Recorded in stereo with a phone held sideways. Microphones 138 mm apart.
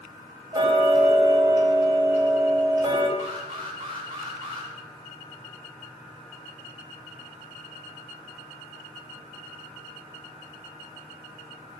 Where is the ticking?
25° right (ahead or behind), 4.5 m.